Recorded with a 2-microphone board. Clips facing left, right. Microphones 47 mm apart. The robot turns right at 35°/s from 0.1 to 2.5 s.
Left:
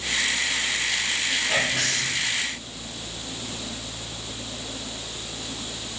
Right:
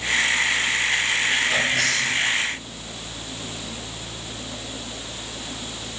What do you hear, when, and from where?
1.5 s whispering: 20° left (ahead or behind), 7.5 m; by 2.2 s 45° left (ahead or behind), 7.5 m